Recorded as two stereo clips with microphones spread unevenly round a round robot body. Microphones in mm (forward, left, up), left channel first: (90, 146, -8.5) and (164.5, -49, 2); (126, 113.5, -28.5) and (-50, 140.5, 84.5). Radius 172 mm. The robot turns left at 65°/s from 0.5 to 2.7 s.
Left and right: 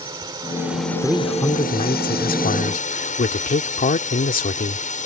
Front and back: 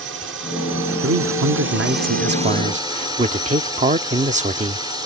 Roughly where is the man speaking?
Behind right.